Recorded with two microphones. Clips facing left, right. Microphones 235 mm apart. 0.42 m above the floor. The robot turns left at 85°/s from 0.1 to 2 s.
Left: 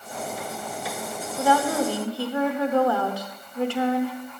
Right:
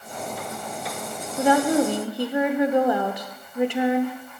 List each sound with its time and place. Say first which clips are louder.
1.4 s a woman speaking: right 4 dB; 20° right (ahead or behind), 0.8 m; by 4.2 s 15° right (ahead or behind), 0.8 m